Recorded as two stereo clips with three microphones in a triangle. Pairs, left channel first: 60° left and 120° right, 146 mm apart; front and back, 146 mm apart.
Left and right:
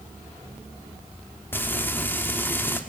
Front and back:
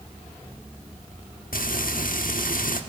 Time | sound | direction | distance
1.5 | frying | 15° right | 1.2 m